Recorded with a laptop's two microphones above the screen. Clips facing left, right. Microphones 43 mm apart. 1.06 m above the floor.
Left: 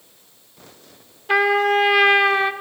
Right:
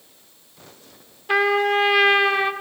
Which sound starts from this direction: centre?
A trumpet, at 1.3 s.